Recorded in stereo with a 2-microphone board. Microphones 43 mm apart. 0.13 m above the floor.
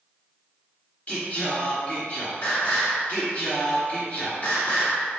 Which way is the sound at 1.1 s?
35° left (ahead or behind).